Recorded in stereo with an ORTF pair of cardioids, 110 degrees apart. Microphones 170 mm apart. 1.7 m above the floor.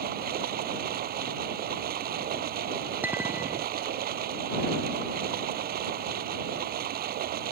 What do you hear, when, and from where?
0.0 s running water: 60° right
3.0 s a clink: 10° right